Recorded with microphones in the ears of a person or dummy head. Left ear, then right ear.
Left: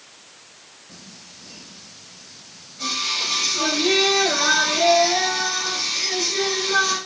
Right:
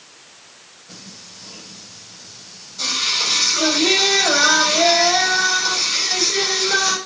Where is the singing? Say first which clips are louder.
Right 5 dB; 85° right, 6 m.